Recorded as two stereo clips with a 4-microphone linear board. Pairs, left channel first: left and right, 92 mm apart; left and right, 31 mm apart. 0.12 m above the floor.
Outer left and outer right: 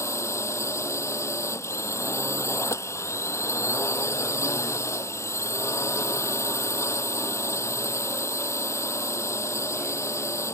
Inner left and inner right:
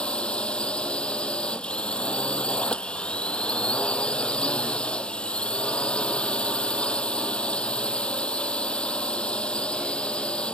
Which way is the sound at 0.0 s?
30° left (ahead or behind).